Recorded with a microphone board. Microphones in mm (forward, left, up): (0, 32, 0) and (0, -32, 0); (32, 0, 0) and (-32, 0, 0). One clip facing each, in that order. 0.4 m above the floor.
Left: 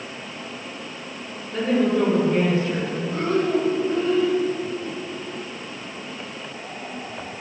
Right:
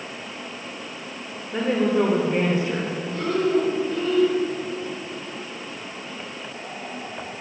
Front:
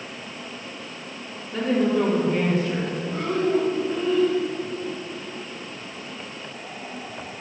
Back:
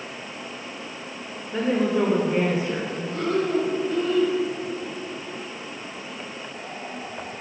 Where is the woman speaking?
125° right, 1.3 m.